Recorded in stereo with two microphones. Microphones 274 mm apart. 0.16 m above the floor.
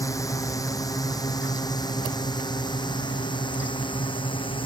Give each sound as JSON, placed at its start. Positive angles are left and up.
{"t": 0.0, "sound": "a drone", "side_deg": 10}